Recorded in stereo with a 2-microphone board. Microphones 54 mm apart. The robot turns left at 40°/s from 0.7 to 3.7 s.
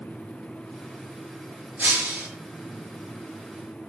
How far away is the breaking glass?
About 5.5 m.